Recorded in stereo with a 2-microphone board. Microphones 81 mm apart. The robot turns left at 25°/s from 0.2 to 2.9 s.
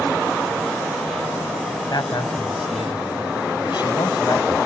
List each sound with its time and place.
1.9 s a man speaking: 55° left (ahead or behind); by 4.5 s 70° left (ahead or behind)